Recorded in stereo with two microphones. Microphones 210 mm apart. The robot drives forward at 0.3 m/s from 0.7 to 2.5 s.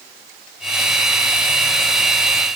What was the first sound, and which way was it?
Only background noise.